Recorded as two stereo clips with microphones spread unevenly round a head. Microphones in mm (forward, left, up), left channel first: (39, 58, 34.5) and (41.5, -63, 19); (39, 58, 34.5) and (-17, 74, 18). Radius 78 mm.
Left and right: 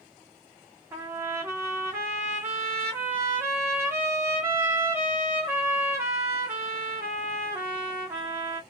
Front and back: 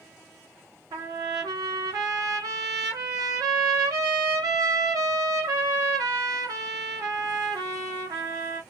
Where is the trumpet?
165° right, 0.6 m.